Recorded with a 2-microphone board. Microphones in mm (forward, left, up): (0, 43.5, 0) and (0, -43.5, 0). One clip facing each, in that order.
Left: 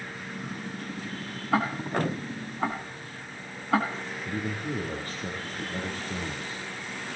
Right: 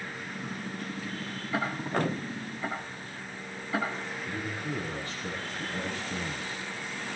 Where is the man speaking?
45° left (ahead or behind), 5 m.